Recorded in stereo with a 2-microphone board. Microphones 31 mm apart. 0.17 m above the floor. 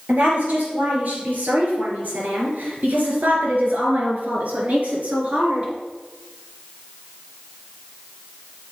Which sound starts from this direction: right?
A woman speaking, at 0.1 s.